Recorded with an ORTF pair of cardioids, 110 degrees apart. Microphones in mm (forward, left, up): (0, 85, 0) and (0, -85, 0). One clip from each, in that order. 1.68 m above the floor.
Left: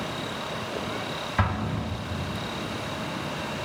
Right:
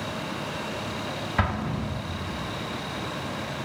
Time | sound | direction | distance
1.4 | an explosion | 10° right | 0.7 m